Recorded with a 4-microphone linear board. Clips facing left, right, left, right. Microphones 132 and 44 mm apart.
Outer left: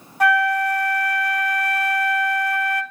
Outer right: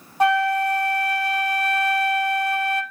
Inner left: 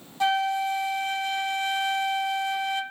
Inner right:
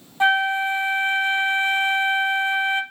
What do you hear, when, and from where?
0.2 s a flute: 25° right (ahead or behind), 0.5 m